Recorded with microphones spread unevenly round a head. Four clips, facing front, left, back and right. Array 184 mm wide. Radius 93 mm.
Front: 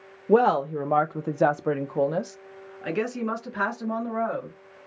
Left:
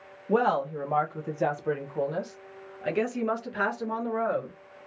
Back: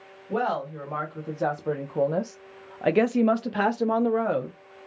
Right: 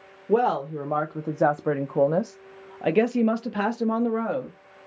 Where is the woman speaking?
10° right, 1.0 m; by 4.5 s 150° right, 1.5 m.